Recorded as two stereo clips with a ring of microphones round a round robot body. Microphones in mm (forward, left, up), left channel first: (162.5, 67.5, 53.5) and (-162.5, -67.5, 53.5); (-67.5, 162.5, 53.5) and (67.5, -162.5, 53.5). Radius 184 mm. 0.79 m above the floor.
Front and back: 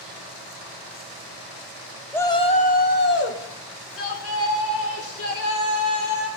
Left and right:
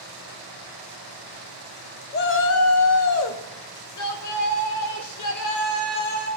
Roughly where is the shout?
Left.